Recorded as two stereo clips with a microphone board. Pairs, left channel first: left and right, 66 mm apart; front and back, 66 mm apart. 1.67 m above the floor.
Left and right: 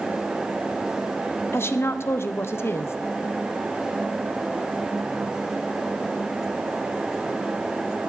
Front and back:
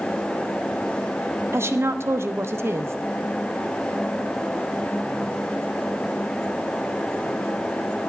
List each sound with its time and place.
1.5 s a woman speaking: 135° left, 0.9 m